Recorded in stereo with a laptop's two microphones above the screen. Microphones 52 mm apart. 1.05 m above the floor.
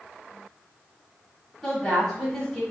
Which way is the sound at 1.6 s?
5° right (ahead or behind).